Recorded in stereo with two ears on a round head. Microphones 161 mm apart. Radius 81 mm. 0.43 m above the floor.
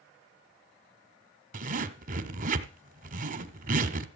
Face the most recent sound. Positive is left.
turn(degrees=-45)  # may be behind; listen again after turning